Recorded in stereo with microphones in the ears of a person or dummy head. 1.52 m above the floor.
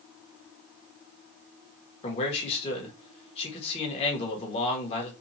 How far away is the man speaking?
About 1.4 m.